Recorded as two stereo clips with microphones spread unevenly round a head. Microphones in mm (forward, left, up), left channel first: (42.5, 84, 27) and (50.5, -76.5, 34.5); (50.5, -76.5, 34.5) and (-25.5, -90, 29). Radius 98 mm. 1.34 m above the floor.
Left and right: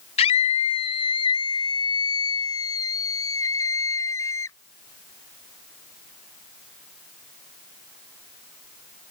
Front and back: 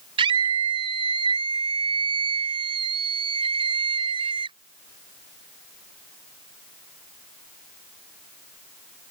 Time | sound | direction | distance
0.2 | a scream | 155° left | ?